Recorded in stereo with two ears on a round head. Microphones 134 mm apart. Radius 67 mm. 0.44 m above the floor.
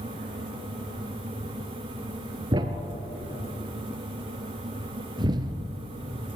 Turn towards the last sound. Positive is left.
turn(degrees=-30)  # may be behind; listen again after turning